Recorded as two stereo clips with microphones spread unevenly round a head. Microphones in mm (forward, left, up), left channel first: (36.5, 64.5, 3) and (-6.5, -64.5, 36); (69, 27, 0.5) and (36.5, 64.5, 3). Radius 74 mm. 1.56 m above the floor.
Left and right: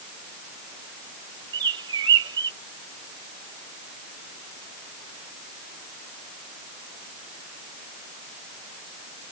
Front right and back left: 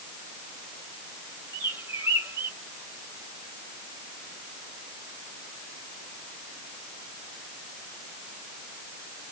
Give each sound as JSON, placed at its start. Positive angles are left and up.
{"t": 1.5, "sound": "a bird", "azimuth_deg": -160}